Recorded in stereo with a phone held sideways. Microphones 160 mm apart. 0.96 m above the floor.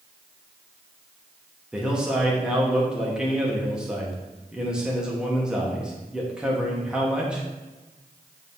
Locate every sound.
1.7 s a man speaking: 5° right (ahead or behind), 1.6 m